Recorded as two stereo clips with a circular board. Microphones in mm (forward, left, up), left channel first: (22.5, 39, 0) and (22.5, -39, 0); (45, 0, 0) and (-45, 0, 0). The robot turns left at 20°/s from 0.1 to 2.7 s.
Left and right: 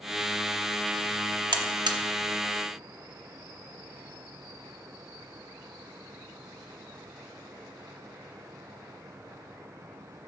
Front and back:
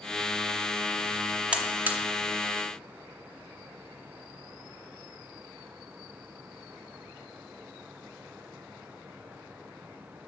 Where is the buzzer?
105° right, 0.7 m; by 2.0 s 110° right, 0.7 m.